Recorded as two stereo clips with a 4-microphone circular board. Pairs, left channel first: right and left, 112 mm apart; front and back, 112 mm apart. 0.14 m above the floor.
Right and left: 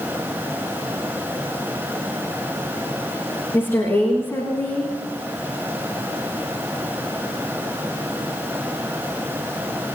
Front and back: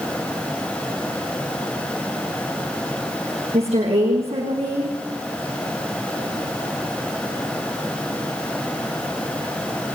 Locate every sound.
3.5 s a woman speaking: 155° right, 9 m